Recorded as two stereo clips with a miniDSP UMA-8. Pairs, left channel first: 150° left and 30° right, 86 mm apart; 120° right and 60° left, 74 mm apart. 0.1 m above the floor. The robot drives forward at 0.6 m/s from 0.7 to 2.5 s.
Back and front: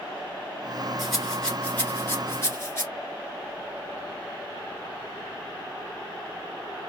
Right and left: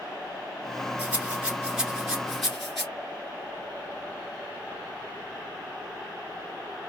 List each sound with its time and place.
1.0 s a rattle: 55° left, 1.4 m; by 2.9 s 150° left, 1.5 m